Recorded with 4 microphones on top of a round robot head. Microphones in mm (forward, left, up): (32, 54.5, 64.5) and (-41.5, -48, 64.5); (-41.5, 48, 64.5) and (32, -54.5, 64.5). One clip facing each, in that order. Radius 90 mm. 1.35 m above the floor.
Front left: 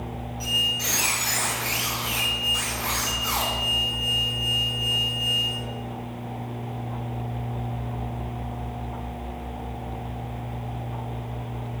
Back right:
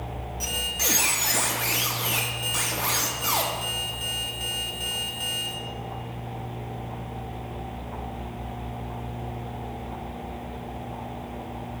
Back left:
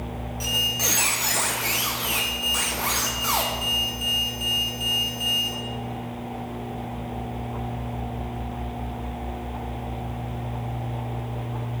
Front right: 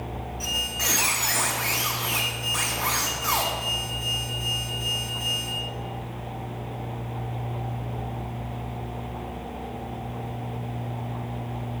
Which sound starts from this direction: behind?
A squeak, at 0.4 s.